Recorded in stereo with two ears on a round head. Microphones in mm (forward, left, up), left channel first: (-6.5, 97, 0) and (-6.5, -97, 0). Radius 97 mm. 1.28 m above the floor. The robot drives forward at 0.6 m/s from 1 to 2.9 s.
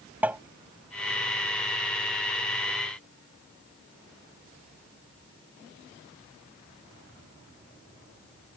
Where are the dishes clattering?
I don't hear dishes clattering.